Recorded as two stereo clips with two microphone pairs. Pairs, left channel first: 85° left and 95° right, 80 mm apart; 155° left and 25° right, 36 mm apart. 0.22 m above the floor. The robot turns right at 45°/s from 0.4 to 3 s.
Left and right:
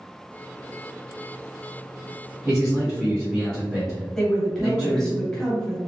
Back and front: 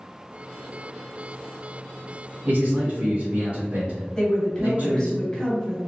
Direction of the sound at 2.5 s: 30° right.